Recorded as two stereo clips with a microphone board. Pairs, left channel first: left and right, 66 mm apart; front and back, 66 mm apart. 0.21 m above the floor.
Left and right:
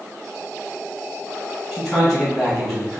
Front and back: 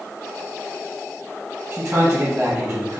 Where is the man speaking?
Straight behind, 2.0 m.